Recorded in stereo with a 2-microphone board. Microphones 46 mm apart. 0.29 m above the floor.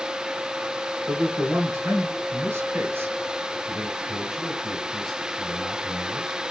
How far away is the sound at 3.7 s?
About 2.5 m.